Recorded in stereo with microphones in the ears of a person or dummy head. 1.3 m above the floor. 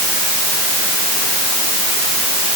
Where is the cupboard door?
I don't hear a cupboard door.